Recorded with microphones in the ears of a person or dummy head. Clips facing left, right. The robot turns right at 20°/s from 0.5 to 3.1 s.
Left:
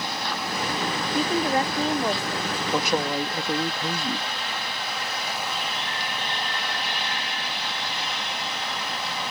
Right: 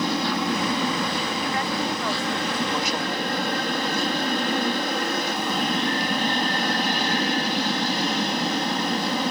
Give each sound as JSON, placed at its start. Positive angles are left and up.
{"t": 0.0, "sound": "an aircraft", "side_deg": -65}
{"t": 1.1, "sound": "a woman speaking", "side_deg": 35}
{"t": 2.7, "sound": "a man speaking", "side_deg": 50}